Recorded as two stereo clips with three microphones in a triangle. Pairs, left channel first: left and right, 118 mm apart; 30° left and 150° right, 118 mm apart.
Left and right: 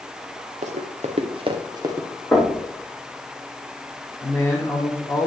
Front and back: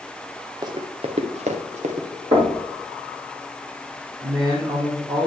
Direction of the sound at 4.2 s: 165° left.